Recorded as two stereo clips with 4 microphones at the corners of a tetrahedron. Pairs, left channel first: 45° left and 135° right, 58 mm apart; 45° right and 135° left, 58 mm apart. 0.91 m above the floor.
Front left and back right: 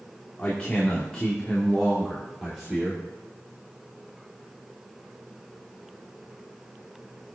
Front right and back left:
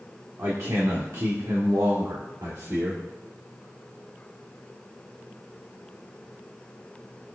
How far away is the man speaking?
About 1.9 m.